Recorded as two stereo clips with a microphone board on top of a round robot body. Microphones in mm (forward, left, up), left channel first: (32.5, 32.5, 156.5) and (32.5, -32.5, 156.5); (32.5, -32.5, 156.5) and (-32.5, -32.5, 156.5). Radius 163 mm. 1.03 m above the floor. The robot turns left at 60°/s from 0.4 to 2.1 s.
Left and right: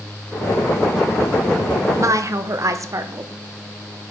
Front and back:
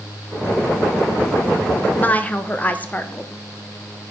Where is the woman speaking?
55° right, 1.3 m; by 3.3 s 65° right, 1.3 m.